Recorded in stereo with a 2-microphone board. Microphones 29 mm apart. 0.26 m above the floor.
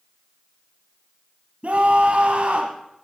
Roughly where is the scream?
Right.